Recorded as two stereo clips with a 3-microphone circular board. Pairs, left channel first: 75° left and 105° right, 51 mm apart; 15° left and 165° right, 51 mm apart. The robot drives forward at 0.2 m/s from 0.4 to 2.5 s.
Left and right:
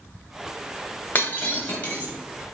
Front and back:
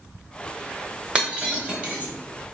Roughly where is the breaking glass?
Behind left.